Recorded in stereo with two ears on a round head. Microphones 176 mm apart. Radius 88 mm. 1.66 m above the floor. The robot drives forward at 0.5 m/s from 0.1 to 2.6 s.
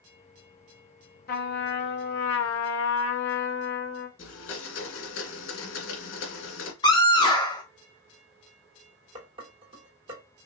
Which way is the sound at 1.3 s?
50° left (ahead or behind).